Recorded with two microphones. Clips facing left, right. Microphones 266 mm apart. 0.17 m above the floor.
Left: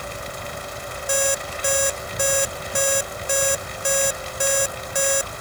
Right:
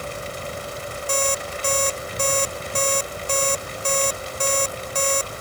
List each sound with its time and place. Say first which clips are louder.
1.1 s an alarm clock: left 1 dB; 10° left (ahead or behind)